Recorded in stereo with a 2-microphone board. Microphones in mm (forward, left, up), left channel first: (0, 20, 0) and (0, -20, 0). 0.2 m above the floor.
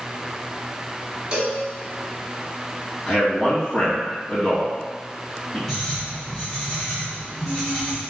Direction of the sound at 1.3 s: 30° right (ahead or behind).